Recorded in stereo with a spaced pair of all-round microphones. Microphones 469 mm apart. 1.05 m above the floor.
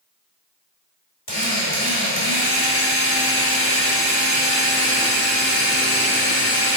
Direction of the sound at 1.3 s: 40° left (ahead or behind).